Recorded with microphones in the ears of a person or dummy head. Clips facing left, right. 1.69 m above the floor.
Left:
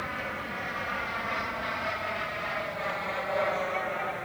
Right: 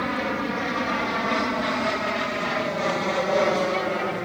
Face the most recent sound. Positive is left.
turn(degrees=-55)  # may be behind; listen again after turning